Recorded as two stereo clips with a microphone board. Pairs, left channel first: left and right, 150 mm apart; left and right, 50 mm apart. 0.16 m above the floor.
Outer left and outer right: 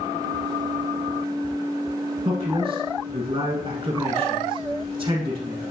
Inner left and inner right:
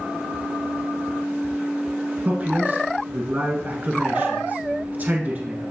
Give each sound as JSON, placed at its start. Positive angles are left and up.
{"t": 2.2, "sound": "a man speaking", "side_deg": -30, "distance_m": 1.4}